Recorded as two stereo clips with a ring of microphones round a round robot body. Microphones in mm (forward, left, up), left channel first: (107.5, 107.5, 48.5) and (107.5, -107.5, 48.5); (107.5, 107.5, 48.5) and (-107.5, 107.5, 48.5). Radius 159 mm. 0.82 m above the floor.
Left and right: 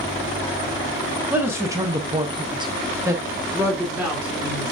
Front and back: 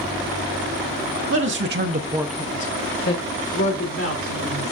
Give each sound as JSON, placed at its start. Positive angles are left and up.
{"t": 1.3, "sound": "a man speaking", "azimuth_deg": -170, "distance_m": 1.6}